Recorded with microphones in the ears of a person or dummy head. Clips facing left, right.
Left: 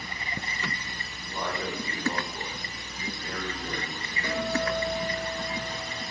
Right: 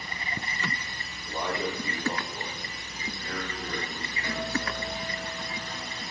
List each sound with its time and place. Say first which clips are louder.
1.3 s a man speaking: right 2 dB; 15° right (ahead or behind), 3.5 m; by 4.9 s 25° left (ahead or behind), 8 m
4.2 s a guitar: left 4 dB; 85° left, 5.5 m